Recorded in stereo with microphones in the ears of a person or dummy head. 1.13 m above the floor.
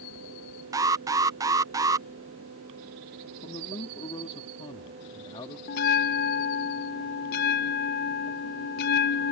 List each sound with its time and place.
0.7 s an alarm: 15° right (ahead or behind)
3.4 s a man speaking: 25° left (ahead or behind)
5.7 s a bell: 50° left (ahead or behind)